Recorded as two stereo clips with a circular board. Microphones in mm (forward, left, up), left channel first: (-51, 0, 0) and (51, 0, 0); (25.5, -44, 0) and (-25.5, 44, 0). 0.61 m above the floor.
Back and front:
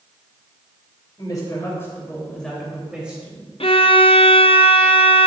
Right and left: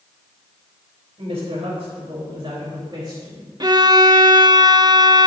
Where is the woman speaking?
135° left, 3 m; by 3.5 s 70° left, 3.5 m.